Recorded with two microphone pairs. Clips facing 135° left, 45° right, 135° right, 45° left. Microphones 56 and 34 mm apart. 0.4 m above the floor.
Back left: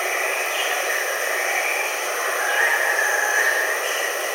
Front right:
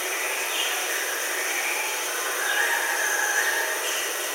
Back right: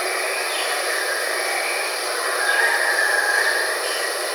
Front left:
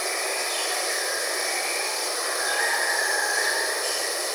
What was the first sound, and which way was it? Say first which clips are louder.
Running water: back left 6 dB, back right 5 dB; 160° left.